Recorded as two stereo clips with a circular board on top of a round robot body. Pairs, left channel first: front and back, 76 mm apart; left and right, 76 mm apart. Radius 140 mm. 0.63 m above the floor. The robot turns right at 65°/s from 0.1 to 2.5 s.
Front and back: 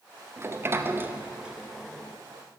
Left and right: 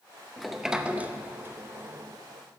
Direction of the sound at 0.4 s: 175° left.